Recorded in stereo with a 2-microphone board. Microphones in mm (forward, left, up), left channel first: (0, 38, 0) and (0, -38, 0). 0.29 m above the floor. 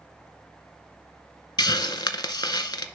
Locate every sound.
1.6 s a hiss: 60° left (ahead or behind), 0.5 m